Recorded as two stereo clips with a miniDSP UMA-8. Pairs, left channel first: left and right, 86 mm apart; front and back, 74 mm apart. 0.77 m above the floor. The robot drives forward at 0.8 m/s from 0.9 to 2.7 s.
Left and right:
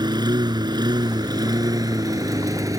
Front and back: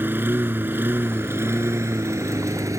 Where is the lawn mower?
120° right; by 2.8 s 135° right.